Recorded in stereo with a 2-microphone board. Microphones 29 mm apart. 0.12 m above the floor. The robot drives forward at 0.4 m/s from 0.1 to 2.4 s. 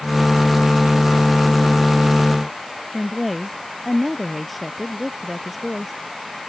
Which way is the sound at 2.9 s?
Centre (ahead or behind).